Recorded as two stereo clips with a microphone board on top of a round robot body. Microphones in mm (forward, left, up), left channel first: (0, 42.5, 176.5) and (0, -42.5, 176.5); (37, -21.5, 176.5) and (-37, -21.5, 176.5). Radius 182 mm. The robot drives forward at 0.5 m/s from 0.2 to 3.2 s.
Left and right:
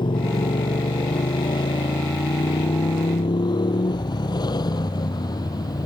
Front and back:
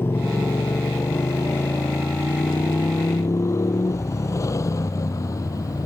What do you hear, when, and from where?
0.0 s a motorcycle: 60° left; by 5.8 s 45° left